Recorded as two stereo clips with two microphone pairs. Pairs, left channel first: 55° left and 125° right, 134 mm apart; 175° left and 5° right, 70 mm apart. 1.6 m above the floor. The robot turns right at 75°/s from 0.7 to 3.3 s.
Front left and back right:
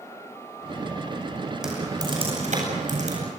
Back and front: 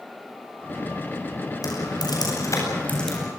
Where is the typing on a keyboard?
150° left, 9 m; by 3.3 s 85° right, 9 m.